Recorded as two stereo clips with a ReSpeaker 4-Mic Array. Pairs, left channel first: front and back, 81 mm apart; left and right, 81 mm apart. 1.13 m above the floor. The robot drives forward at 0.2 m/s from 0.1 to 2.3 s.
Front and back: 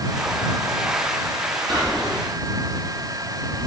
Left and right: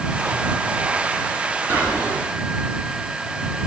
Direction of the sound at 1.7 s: 155° right.